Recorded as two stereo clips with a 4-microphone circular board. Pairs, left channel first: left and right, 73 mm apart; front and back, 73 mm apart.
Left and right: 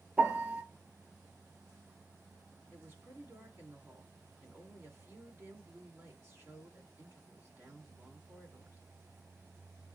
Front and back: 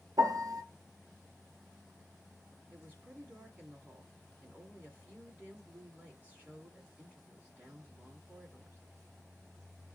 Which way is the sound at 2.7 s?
125° right.